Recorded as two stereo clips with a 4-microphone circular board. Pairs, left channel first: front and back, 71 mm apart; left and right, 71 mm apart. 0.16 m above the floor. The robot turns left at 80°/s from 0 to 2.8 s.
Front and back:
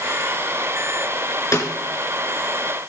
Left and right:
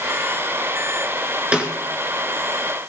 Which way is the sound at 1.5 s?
15° right.